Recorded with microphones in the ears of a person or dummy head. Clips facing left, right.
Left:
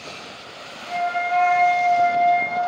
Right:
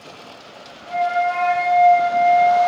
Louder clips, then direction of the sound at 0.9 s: Right 4 dB; 30° left (ahead or behind).